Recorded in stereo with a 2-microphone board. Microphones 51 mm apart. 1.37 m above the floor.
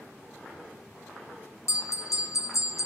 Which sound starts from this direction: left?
A bell, at 1.7 s.